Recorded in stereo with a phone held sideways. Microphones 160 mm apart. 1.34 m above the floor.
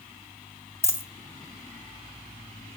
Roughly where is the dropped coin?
Centre.